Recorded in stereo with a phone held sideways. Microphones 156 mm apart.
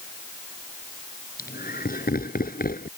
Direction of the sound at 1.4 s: 85° left.